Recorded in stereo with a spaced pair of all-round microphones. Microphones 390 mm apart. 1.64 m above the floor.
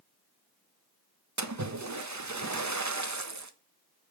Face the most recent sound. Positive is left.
turn(degrees=-45)  # may be behind; listen again after turning